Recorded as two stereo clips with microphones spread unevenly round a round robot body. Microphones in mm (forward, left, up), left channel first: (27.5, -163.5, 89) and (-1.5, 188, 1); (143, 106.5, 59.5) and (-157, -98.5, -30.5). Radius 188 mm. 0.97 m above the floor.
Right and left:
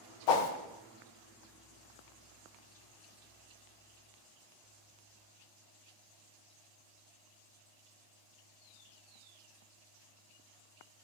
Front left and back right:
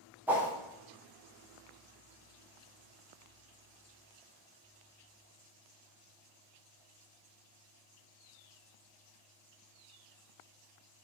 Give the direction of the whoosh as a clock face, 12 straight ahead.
2 o'clock.